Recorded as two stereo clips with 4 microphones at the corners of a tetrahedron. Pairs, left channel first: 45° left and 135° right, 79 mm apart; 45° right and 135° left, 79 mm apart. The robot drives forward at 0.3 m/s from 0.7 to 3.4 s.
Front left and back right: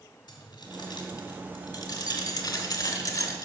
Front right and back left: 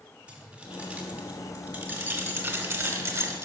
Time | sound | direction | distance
0.3 | keys jangling | 65° left | 1.9 m